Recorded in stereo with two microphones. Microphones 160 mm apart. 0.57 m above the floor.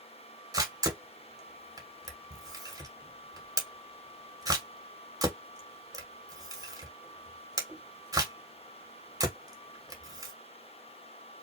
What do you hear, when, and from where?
0.5 s a camera shutter: 20° right (ahead or behind), 1.7 m